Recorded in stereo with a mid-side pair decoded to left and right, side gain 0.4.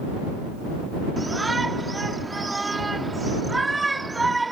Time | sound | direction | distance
1.2 | a shout | 20° right | ?